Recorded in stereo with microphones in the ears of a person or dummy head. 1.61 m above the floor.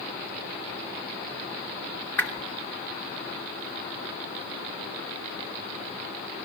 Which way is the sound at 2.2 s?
10° left (ahead or behind).